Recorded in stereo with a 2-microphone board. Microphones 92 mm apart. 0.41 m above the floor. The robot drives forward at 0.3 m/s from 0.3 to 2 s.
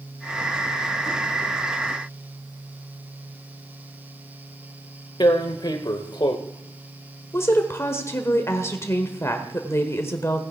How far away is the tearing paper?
About 1.0 m.